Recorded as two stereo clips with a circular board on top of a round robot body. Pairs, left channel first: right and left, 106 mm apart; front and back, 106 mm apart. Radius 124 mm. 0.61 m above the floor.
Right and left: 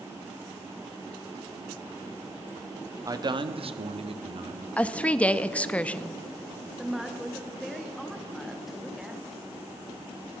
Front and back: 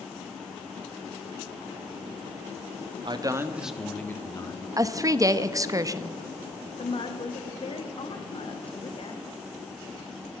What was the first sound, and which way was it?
A man speaking, 145° left.